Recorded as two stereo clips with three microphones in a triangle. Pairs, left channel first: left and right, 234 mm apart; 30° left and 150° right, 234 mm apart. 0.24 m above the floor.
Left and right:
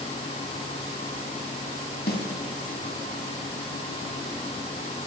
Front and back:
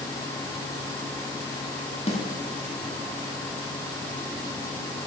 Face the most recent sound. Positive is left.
turn(degrees=80)